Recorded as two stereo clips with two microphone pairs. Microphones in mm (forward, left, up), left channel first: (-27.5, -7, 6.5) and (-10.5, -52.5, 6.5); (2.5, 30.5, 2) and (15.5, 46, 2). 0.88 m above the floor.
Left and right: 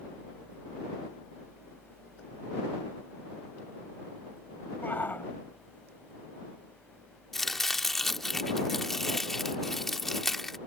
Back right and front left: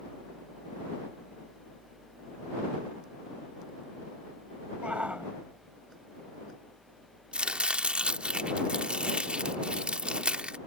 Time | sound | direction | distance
4.8 | a shout | 60° left | ?
7.3 | chopping | 25° left | ?